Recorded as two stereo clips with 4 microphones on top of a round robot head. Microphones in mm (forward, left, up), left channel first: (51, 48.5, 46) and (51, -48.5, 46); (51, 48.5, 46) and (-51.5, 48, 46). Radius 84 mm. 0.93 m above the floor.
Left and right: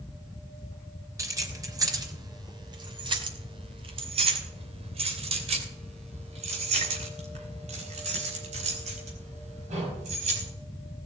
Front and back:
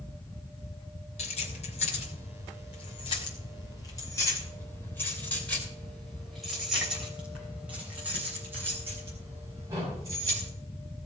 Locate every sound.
1.2 s keys jangling: 30° right, 3 m; by 10.5 s 110° right, 5 m